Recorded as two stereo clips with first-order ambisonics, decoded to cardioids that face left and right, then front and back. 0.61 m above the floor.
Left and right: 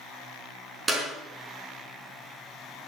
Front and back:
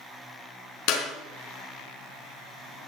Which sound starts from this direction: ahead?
A clap, at 0.9 s.